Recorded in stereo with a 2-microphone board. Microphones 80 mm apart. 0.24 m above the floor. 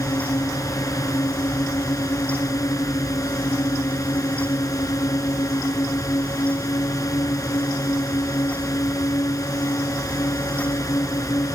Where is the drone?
45° left (ahead or behind).